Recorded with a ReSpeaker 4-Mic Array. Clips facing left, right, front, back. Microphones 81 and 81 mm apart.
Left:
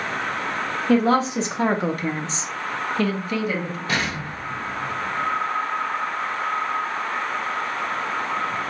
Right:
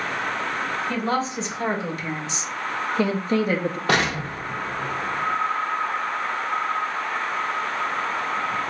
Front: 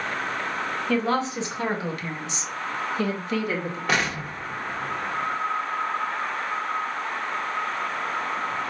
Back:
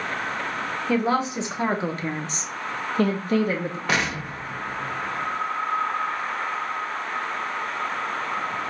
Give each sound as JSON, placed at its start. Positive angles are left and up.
{"t": 0.9, "sound": "a woman speaking", "azimuth_deg": 105, "distance_m": 1.8}
{"t": 3.9, "sound": "an explosion", "azimuth_deg": -90, "distance_m": 0.8}